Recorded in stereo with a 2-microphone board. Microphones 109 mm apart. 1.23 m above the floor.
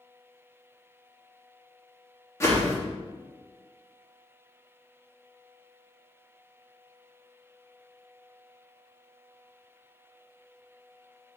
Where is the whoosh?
25° left (ahead or behind), 1.2 m.